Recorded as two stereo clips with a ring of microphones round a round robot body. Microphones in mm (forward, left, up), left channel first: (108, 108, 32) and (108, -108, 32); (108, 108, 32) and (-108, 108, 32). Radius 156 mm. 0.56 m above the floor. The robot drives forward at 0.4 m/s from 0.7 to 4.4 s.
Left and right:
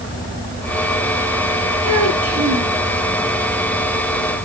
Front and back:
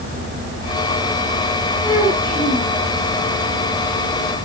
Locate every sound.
1.8 s a child speaking: 100° right, 6 m; by 2.7 s 105° right, 6 m